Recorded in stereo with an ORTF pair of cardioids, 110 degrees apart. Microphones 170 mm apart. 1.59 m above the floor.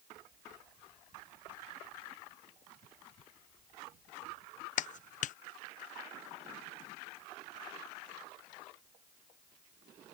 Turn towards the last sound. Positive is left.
turn(degrees=50)